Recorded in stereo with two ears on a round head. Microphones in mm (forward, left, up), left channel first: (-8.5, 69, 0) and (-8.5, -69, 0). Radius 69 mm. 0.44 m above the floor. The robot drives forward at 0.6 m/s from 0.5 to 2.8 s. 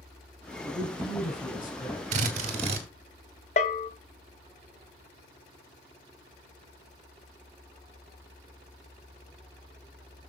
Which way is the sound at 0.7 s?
50° left (ahead or behind).